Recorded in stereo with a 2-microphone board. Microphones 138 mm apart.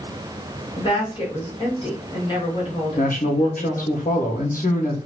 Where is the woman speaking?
35° left (ahead or behind), 1.6 m.